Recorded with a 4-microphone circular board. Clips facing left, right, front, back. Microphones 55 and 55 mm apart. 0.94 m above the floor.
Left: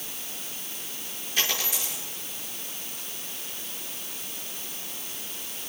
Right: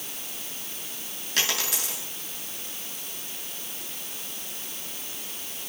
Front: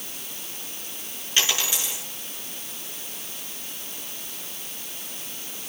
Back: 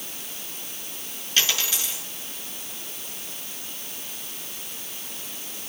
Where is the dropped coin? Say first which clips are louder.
Right 1 dB, even; 70° right, 6 m.